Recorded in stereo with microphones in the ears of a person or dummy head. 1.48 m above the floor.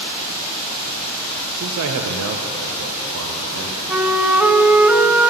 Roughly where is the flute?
Centre.